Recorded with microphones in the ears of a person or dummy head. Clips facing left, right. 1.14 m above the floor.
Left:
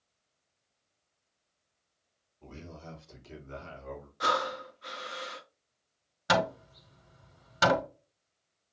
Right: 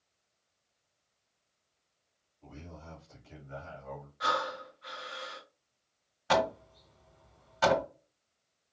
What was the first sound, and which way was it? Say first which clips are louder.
A man speaking: left 3 dB; 80° left.